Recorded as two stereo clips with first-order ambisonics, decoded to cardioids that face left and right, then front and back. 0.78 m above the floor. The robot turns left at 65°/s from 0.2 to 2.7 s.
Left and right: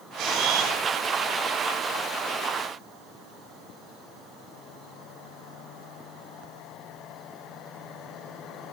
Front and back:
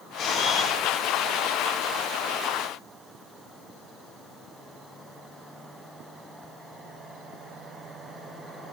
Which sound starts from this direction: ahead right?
A camera shutter, at 0.2 s.